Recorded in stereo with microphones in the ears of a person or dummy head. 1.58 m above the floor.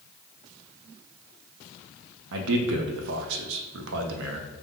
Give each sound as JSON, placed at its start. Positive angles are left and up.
{"t": 2.3, "sound": "a man speaking", "side_deg": -75, "distance_m": 0.5}